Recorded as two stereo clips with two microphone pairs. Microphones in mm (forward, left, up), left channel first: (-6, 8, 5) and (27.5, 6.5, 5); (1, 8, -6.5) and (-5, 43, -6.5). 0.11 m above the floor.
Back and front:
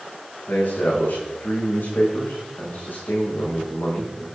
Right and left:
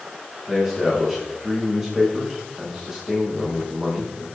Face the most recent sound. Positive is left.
turn(degrees=170)